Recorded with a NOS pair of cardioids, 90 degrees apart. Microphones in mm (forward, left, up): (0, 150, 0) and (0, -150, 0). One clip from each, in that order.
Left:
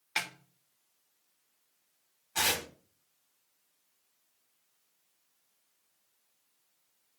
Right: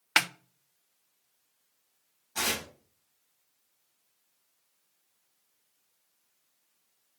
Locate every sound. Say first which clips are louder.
0.2 s a snare drum: right 9 dB; 55° right, 0.8 m
2.4 s tearing paper: left 1 dB; 30° left, 3 m